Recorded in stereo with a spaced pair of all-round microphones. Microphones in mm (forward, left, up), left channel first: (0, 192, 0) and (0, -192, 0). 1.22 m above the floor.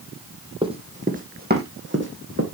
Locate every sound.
0.6 s running footsteps: 15° right (ahead or behind), 2 m; by 2.4 s 35° right (ahead or behind), 3 m